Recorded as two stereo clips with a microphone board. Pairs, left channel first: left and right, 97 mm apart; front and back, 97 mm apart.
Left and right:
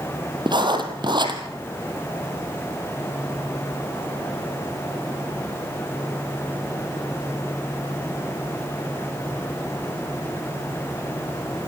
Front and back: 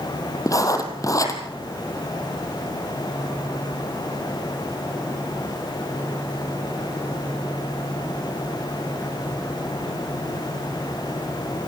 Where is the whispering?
I don't hear whispering.